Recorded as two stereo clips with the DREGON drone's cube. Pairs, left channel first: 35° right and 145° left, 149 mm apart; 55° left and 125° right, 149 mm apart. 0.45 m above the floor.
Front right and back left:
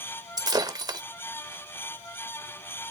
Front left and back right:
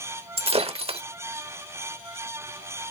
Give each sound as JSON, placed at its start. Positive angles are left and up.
{"t": 0.4, "sound": "breaking glass", "azimuth_deg": -160, "distance_m": 0.8}